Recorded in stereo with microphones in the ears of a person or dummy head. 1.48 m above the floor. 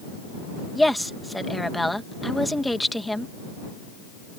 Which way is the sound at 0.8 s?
Centre (ahead or behind).